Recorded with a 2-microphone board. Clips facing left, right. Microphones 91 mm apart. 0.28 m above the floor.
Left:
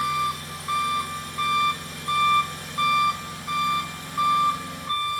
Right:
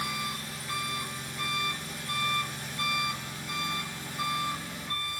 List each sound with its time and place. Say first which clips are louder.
0.0 s an engine running: left 10 dB; 70° left (ahead or behind), 2 m